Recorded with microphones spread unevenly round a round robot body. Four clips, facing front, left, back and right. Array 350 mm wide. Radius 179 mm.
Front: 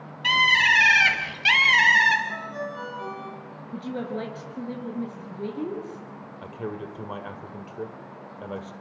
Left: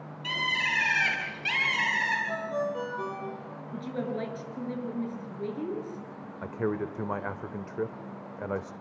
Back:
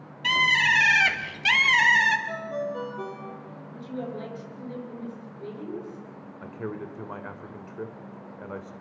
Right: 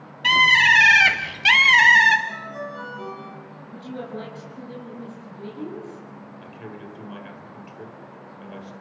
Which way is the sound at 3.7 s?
15° left.